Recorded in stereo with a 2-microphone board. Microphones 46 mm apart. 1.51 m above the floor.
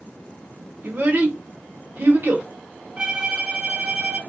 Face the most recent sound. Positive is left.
turn(degrees=-20)  # may be behind; listen again after turning